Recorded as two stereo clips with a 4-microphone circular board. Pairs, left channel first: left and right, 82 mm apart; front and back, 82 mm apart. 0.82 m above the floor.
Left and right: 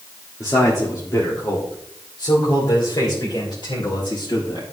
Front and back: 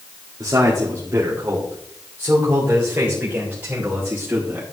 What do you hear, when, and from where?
0.4 s a man speaking: 135° left, 1.7 m; by 4.6 s 110° left, 4 m